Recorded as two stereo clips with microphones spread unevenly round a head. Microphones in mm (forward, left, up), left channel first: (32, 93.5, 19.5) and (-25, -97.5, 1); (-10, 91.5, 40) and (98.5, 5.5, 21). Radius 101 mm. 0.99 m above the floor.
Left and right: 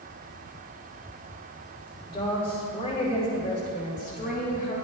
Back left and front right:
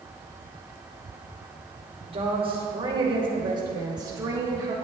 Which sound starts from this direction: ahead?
A woman speaking, at 2.1 s.